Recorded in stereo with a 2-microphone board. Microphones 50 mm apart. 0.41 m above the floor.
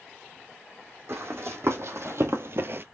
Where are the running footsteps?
65° right (ahead or behind), 1.4 m; by 2.8 s 45° right (ahead or behind), 0.5 m.